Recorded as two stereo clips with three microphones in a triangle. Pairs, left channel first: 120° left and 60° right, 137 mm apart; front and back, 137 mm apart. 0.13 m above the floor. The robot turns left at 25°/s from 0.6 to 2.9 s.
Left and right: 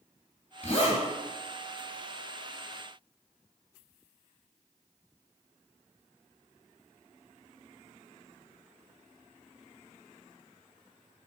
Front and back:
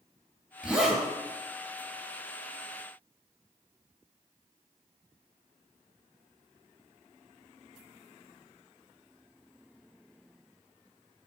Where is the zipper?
100° left, 3 m; by 1.0 s 90° left, 3 m.